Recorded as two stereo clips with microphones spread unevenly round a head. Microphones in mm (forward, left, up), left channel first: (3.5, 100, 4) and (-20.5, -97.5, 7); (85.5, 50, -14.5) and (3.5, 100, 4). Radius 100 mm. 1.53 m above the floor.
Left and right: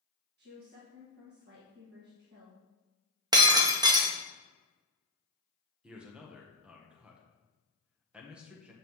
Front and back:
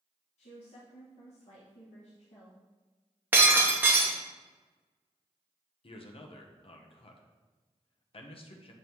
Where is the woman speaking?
55° right, 1.7 m.